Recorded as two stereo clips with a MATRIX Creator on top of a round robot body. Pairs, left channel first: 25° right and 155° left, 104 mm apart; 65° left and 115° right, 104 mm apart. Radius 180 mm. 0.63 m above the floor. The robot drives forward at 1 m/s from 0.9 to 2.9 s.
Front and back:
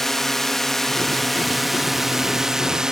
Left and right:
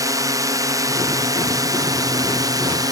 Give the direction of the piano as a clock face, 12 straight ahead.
I don't hear a piano.